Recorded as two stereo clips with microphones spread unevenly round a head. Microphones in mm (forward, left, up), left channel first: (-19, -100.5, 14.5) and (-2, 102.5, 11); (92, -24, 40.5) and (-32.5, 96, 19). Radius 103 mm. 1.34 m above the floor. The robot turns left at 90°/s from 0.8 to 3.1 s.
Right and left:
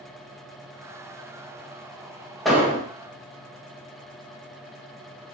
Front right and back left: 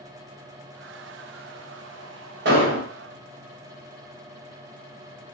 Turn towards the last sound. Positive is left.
turn(degrees=120)